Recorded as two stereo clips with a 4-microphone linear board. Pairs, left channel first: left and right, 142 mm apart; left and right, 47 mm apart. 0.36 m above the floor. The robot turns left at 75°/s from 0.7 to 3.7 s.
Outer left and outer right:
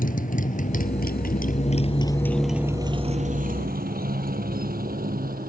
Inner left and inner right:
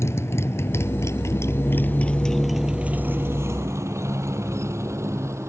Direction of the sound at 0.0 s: 70° left (ahead or behind).